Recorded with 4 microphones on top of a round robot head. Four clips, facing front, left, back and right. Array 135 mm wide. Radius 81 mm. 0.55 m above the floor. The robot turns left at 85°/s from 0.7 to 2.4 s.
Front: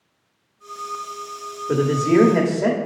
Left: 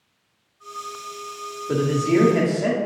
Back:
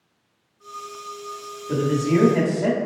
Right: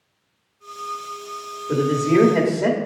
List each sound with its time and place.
1.7 s a man speaking: 20° left, 1.3 m; by 2.8 s 40° right, 1.3 m